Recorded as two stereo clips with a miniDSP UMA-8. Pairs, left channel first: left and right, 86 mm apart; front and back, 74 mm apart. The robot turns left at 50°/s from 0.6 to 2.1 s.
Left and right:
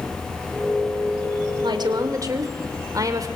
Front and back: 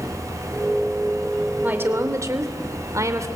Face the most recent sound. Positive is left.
turn(degrees=-135)